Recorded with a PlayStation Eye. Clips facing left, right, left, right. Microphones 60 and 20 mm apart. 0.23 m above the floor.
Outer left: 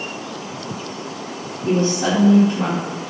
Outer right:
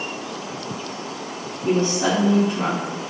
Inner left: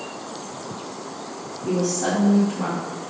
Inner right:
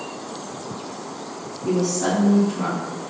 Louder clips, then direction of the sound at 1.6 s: Outer left 1 dB, inner right 1 dB; 45° right (ahead or behind).